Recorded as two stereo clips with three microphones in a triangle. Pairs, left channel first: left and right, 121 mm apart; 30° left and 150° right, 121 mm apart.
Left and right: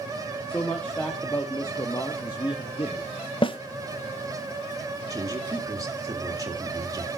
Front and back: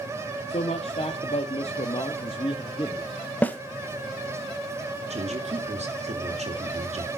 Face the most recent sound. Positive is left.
turn(degrees=-150)